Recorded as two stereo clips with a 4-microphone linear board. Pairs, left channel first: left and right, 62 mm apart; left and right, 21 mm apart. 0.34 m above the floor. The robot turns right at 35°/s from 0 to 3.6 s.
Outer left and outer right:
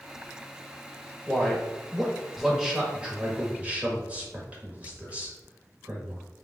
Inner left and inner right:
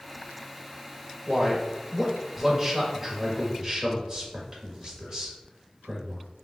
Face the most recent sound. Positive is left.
turn(degrees=-25)  # may be behind; listen again after turning